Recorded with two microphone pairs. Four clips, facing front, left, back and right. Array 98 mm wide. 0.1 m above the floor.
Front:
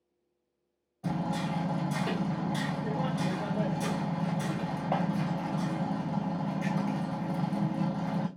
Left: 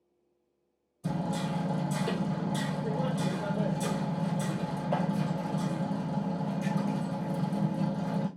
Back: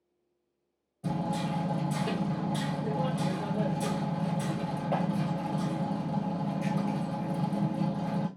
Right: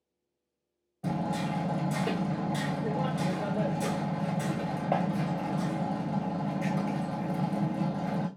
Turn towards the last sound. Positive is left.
turn(degrees=-80)